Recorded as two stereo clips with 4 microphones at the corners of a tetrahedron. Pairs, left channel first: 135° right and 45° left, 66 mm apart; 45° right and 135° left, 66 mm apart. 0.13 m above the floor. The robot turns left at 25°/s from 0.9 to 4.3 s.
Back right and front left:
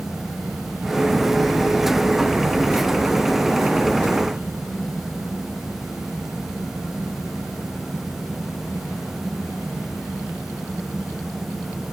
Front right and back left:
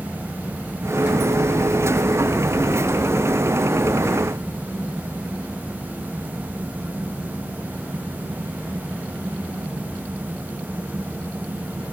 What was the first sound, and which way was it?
Only background noise.